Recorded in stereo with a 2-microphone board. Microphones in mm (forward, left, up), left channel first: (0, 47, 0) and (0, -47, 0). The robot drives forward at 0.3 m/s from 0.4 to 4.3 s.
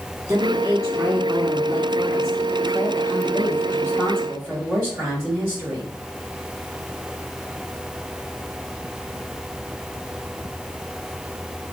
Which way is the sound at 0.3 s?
40° right (ahead or behind).